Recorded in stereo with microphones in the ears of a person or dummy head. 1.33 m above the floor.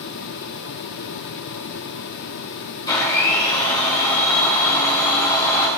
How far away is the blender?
About 2.5 m.